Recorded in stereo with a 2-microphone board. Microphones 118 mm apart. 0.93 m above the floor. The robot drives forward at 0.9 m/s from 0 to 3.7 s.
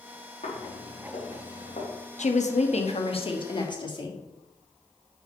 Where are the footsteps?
80° left, 4.5 m; by 1.9 s 65° left (ahead or behind), 4 m.